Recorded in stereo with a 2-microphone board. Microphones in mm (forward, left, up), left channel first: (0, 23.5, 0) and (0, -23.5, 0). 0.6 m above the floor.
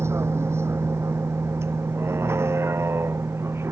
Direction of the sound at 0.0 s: 65° right (ahead or behind).